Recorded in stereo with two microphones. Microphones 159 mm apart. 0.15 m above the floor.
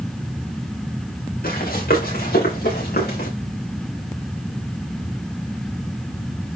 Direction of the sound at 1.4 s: 70° left (ahead or behind).